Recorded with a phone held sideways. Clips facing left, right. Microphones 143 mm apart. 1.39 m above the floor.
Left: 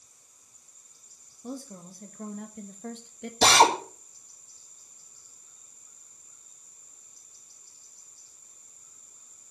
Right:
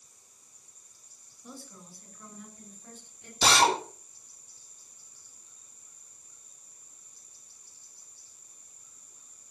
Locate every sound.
1.4 s a woman speaking: 40° left (ahead or behind), 2 m; by 3.3 s 85° left, 1.8 m
3.4 s a drill: 65° left (ahead or behind), 4 m